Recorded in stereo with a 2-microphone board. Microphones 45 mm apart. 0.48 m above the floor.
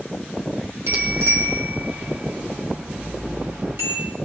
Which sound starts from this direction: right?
A bicycle bell, at 0.9 s.